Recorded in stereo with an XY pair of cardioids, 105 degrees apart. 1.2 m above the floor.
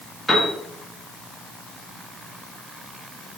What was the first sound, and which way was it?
A piano, 15° left.